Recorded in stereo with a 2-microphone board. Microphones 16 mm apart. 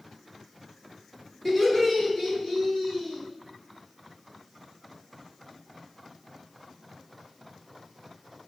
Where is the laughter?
10° left (ahead or behind), 1.7 m; by 3.2 s 30° left (ahead or behind), 1.9 m.